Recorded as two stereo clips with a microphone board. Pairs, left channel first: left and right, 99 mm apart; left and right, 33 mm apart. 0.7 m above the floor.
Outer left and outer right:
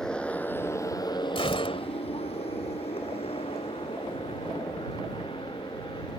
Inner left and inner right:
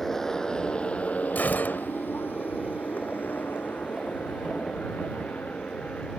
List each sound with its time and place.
0.0 s a motorcycle: 10° left (ahead or behind); by 6.2 s 55° left (ahead or behind)
1.4 s a gunshot: 70° left (ahead or behind)